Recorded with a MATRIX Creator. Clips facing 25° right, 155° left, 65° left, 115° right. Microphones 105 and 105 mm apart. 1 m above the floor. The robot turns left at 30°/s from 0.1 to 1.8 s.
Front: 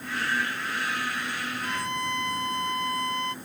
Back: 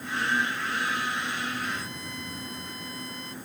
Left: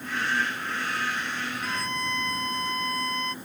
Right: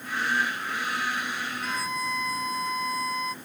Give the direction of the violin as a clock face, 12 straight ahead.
1 o'clock.